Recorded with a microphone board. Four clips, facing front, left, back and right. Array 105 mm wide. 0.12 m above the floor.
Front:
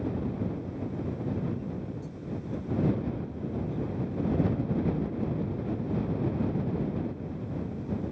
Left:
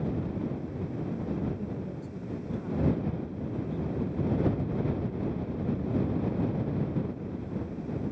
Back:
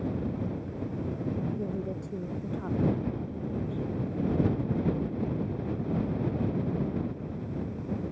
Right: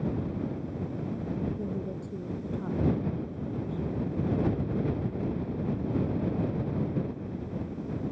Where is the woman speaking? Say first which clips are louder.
Right 2 dB, back 3 dB; 160° right.